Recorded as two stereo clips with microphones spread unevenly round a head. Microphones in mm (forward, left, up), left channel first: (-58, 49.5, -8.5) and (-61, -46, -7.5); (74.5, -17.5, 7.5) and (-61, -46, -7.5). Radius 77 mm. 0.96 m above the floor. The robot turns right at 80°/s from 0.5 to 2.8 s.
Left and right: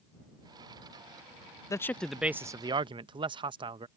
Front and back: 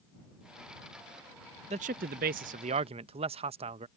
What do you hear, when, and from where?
1.7 s a man speaking: 145° left; by 3.9 s 125° right